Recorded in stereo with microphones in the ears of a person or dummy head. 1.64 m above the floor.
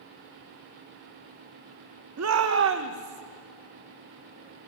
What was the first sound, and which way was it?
A shout, 85° right.